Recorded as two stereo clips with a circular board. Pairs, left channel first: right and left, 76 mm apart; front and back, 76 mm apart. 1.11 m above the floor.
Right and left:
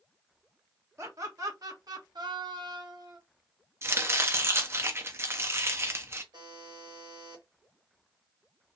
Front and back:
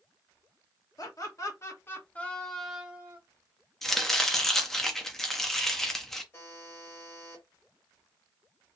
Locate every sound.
1.0 s laughter: 40° left, 1.2 m; by 3.2 s 120° left, 0.8 m
3.8 s chopping: 85° left, 0.6 m
6.3 s a buzzer: 60° left, 1.2 m